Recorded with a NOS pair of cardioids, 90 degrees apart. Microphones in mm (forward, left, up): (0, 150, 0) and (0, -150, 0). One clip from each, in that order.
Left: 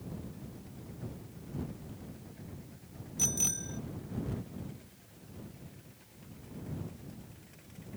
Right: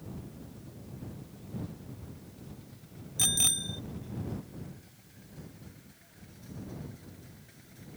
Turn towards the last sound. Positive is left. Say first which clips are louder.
# right 3 dB
turn(degrees=-45)